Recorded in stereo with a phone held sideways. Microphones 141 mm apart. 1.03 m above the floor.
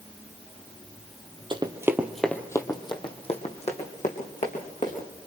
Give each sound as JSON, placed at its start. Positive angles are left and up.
{"t": 1.5, "sound": "running footsteps", "side_deg": -35, "distance_m": 1.6}